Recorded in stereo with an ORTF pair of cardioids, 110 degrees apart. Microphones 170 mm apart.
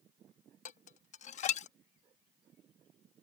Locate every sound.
0.7 s dishes clattering: 45° left